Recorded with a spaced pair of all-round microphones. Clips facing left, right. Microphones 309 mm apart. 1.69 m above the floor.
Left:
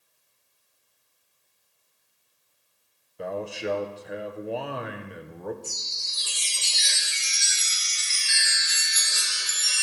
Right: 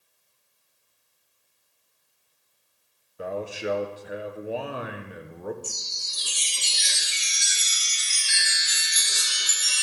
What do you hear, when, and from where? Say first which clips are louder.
3.2 s a man speaking: even; centre (ahead or behind), 0.8 m
5.6 s a chime: right 1 dB; 40° right (ahead or behind), 0.7 m